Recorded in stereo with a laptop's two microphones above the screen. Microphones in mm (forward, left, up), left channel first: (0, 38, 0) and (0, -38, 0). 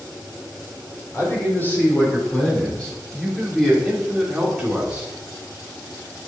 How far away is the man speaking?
About 4.5 m.